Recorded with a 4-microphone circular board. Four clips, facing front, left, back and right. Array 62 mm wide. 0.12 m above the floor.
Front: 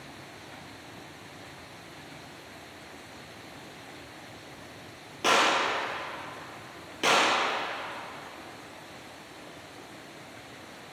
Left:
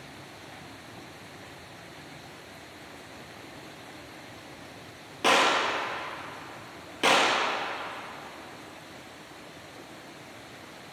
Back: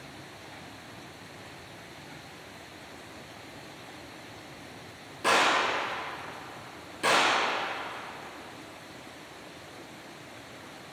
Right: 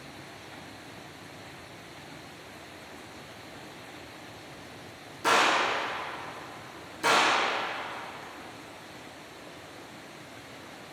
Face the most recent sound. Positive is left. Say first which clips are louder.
# left 1 dB, even
turn(degrees=65)